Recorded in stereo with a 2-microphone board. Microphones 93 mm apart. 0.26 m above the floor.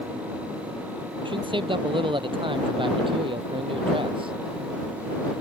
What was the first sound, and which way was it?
A man speaking, 60° right (ahead or behind).